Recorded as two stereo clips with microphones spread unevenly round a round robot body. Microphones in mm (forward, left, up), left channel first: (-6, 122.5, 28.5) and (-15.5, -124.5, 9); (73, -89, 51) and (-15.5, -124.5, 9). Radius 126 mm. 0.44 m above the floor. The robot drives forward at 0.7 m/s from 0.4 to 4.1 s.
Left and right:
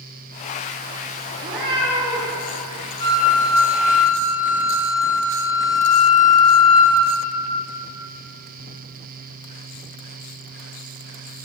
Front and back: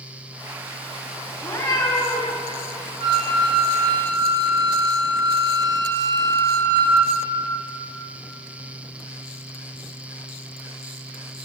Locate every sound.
1.4 s a cat meowing: 20° right, 3 m; by 2.4 s 25° right, 2.5 m
3.0 s a flute: 160° left, 3.5 m; by 7.1 s 165° left, 4 m